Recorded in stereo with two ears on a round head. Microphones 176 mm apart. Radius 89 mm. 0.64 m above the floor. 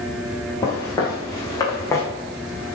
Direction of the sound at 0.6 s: 20° left (ahead or behind).